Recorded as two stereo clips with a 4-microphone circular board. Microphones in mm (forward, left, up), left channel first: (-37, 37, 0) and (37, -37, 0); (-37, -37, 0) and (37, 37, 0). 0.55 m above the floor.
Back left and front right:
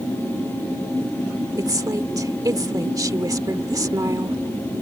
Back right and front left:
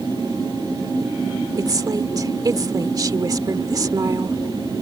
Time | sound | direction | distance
1.6 | a woman speaking | straight ahead | ?